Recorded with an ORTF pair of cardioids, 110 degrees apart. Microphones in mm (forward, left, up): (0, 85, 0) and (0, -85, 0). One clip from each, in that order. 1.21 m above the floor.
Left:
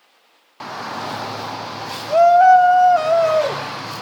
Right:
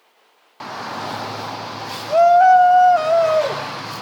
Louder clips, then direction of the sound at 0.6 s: Even; straight ahead.